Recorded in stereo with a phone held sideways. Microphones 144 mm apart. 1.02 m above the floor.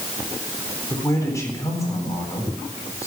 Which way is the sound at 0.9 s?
20° left (ahead or behind).